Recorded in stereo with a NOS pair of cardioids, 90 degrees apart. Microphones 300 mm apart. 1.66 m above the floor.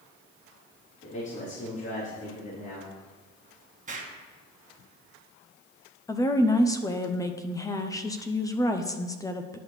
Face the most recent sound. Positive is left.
turn(degrees=10)